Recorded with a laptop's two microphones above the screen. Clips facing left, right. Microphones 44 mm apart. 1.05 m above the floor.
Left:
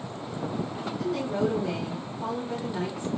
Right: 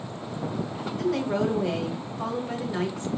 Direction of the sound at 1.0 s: 85° right.